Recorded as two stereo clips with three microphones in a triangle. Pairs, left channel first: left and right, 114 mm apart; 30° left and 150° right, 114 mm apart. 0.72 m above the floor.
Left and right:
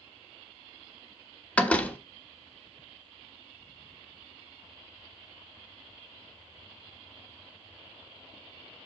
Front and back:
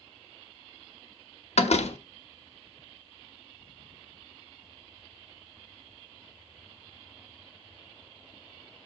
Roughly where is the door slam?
Ahead.